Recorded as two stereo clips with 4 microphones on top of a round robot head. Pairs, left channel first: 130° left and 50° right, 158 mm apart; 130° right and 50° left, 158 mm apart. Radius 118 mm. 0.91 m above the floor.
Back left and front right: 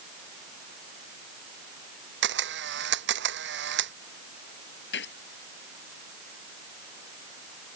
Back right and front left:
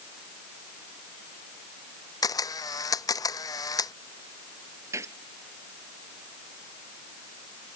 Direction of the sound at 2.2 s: 65° right.